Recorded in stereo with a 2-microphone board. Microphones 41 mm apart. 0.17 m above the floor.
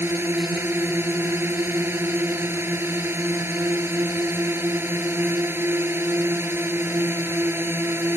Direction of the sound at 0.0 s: 65° right (ahead or behind).